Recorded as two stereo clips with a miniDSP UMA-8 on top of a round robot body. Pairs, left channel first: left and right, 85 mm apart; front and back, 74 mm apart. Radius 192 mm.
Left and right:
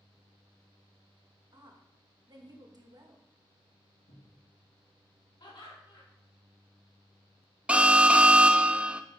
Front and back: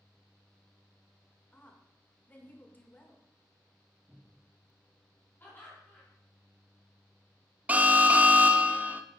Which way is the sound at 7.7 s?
145° right.